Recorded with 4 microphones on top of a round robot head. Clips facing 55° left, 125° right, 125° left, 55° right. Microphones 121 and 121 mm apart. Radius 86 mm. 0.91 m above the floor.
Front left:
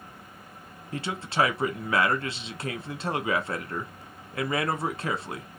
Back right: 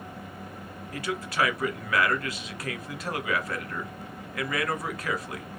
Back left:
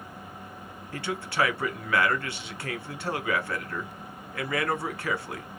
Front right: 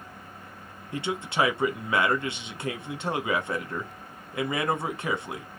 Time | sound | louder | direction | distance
0.9 | a man speaking | front left 2 dB, front right 2 dB | 5° left | 1.1 m